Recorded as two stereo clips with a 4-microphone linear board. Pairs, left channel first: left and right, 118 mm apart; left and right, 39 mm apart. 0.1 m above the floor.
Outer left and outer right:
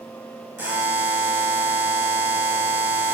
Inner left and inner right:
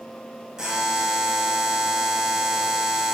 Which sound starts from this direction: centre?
A buzzer, at 0.6 s.